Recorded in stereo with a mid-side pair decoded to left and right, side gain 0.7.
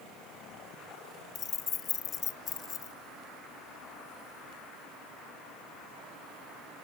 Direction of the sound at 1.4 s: 40° left.